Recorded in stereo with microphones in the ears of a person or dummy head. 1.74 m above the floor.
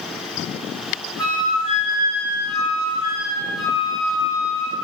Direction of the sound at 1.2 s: Centre (ahead or behind).